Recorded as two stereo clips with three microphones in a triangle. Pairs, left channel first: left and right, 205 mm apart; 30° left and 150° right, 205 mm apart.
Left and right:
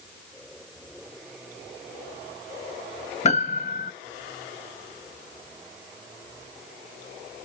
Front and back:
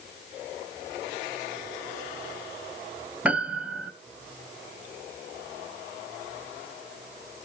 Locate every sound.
3.2 s a piano: 130° left, 0.5 m